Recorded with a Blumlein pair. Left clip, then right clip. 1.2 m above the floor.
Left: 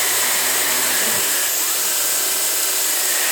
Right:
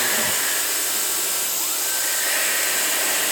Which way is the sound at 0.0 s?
15° left.